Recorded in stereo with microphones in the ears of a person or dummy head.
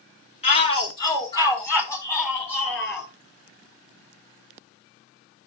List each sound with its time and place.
0.4 s a shout: 30° left (ahead or behind), 2.5 m; by 3.1 s 5° left (ahead or behind), 6 m